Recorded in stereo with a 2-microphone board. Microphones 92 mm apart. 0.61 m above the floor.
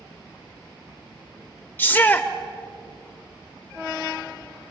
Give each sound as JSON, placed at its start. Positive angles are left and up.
{"t": 1.8, "sound": "a shout", "side_deg": 20, "distance_m": 1.9}